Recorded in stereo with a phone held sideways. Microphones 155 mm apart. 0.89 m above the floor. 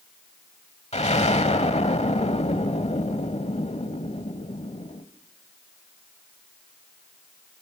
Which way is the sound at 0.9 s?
45° left (ahead or behind).